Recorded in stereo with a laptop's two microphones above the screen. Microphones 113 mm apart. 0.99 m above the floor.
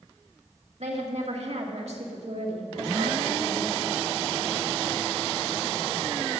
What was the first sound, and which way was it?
A woman speaking, 70° right (ahead or behind).